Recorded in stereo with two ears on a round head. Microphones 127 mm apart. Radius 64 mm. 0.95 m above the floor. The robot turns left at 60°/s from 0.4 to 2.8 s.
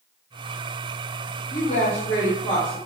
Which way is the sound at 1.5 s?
75° left.